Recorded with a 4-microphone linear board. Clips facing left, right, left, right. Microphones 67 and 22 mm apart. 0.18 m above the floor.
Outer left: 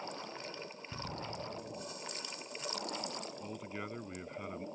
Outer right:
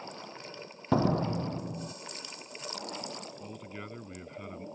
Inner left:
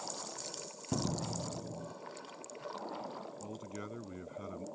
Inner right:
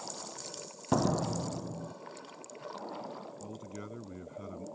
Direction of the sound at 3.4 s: 5° left (ahead or behind).